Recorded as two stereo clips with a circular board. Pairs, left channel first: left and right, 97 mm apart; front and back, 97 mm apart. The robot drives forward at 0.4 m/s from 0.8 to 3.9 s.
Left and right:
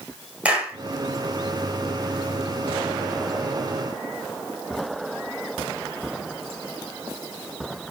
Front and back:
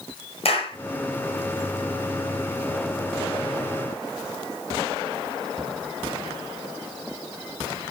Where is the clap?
10° right, 5 m.